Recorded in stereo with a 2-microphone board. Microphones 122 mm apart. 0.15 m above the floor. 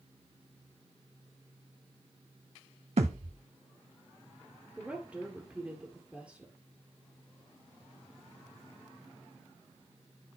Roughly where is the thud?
Right.